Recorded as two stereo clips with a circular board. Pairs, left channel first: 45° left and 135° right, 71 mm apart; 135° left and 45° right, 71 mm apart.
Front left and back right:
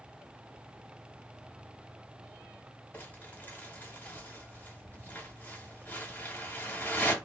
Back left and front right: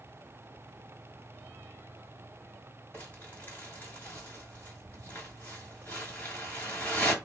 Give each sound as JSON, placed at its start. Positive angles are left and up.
{"t": 2.9, "sound": "crumpling", "azimuth_deg": 95, "distance_m": 1.5}